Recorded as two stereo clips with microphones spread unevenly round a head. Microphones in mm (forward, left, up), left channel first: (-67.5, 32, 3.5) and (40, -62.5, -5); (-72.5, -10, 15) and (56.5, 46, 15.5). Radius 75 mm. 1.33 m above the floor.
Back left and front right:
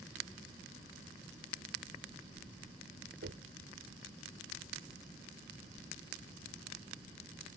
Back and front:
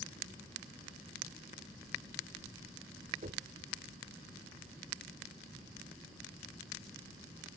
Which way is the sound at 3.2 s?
20° right.